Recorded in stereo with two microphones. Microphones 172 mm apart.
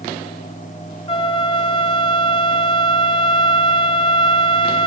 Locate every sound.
1.1 s a flute: 35° left (ahead or behind), 1.0 m